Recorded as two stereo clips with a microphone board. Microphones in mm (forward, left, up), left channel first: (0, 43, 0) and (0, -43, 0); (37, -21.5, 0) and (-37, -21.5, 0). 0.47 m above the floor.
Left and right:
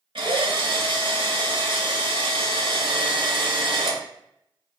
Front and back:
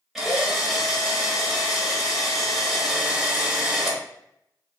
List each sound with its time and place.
0.1 s a drill: 95° right, 1.5 m